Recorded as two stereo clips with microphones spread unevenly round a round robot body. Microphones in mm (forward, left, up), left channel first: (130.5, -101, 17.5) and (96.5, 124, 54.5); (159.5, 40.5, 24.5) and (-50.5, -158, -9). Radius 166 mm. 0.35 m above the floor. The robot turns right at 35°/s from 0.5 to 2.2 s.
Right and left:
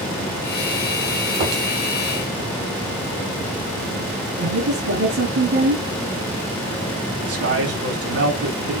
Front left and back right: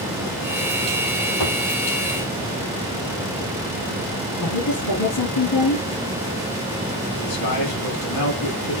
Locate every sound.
1.4 s a thud: 80° left, 5.5 m; by 1.6 s 90° left, 5.5 m
4.4 s a woman speaking: 85° left, 5 m
7.2 s a man speaking: 90° left, 3.5 m